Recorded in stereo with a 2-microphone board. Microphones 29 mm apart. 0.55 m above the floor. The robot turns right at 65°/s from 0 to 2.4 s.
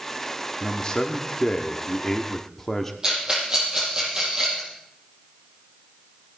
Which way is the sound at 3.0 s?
30° right (ahead or behind).